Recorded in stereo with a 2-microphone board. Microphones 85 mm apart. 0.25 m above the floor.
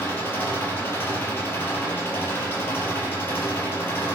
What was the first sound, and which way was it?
An engine running, 30° left (ahead or behind).